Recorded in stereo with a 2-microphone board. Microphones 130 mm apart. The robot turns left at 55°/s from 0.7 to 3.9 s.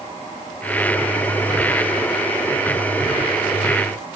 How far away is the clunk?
I don't hear a clunk.